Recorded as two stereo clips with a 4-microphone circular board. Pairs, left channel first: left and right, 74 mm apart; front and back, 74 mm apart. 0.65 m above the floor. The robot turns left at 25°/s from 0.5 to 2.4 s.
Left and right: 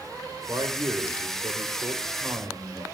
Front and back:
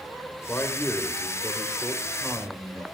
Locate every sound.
0.5 s a man speaking: 65° right, 2.5 m; by 2.8 s 110° right, 2.5 m